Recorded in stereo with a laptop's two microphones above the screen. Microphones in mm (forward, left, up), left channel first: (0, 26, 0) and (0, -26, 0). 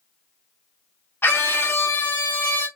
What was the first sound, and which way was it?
A scream, 45° left (ahead or behind).